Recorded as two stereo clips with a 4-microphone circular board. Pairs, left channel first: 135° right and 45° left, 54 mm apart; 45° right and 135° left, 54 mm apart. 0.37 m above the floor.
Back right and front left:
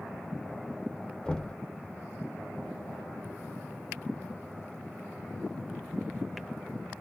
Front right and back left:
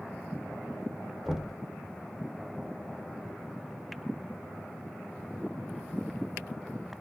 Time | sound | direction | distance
1.2 | knocking | 165° right | 0.5 m